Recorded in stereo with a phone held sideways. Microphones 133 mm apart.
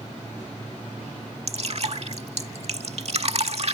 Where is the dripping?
55° right (ahead or behind).